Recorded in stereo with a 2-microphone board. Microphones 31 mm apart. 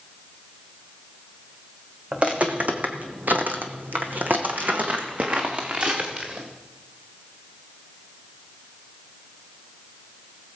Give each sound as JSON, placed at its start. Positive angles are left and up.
{"t": 2.1, "sound": "footsteps", "side_deg": -35, "distance_m": 1.7}